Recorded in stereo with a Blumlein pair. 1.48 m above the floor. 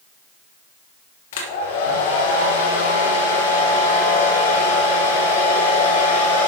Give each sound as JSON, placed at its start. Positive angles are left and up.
{"t": 1.3, "sound": "a hair dryer", "azimuth_deg": 55, "distance_m": 1.8}